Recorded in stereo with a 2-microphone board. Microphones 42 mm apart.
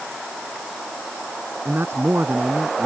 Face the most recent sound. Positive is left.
turn(degrees=-60)  # may be behind; listen again after turning